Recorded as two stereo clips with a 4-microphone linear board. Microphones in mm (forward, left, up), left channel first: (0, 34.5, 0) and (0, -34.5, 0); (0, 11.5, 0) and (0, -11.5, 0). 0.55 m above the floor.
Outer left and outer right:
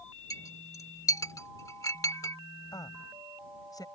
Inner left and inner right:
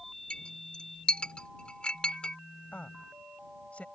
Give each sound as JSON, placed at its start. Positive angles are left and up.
{"t": 0.3, "sound": "a clink", "side_deg": 55}
{"t": 2.7, "sound": "a woman speaking", "side_deg": 70}